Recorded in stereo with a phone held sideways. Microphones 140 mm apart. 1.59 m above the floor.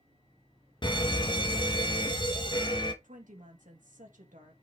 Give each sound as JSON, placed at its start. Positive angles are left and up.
{"t": 0.8, "sound": "a fire alarm", "side_deg": 35, "distance_m": 1.1}
{"t": 3.0, "sound": "a woman speaking", "side_deg": -80, "distance_m": 2.0}